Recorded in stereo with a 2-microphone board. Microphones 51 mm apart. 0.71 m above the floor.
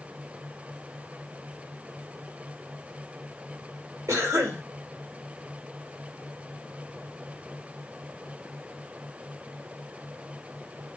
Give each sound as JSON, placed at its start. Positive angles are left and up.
{"t": 4.1, "sound": "a cough", "side_deg": -75, "distance_m": 1.9}